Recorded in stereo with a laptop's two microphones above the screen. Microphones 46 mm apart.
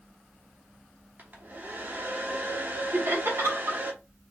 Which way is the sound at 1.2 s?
45° right (ahead or behind).